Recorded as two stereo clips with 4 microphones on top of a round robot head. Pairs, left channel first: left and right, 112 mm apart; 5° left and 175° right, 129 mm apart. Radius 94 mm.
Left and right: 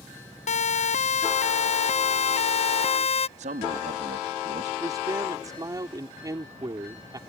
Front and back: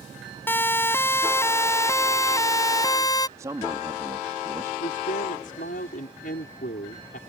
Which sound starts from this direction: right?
A man speaking, at 3.4 s.